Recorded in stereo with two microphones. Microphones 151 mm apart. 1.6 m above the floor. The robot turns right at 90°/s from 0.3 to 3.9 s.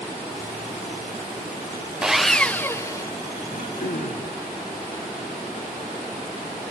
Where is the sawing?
5° right (ahead or behind), 0.5 m; by 3.1 s 20° left (ahead or behind), 0.5 m.